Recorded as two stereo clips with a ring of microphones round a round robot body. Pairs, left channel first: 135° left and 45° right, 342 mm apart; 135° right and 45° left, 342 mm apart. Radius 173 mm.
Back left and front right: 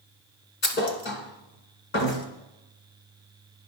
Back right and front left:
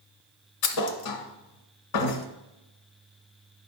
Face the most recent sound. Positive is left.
turn(degrees=-165)